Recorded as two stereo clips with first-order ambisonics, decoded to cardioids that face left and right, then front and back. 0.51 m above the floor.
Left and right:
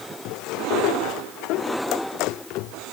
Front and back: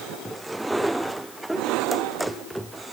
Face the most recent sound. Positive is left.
No sound to turn to.